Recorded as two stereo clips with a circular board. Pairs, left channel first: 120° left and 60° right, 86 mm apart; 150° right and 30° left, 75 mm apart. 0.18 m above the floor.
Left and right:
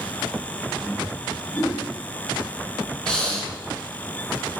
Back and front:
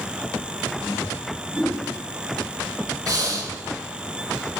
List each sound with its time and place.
1.5 s a whoosh: 120° left, 1.0 m
3.1 s breathing: 40° left, 0.7 m